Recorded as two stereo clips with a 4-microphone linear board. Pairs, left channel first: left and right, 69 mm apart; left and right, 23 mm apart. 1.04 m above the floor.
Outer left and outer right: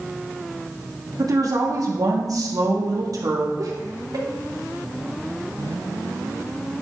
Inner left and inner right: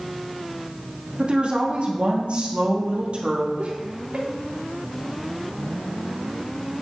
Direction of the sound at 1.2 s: 60° right (ahead or behind).